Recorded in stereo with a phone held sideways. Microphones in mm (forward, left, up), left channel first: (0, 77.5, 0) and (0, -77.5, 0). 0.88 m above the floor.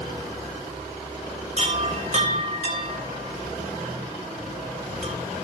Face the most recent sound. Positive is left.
turn(degrees=-45)  # may be behind; listen again after turning